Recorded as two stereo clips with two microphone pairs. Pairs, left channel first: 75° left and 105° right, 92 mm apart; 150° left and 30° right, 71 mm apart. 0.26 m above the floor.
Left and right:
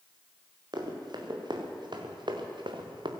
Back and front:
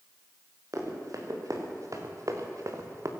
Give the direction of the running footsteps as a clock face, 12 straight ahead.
2 o'clock.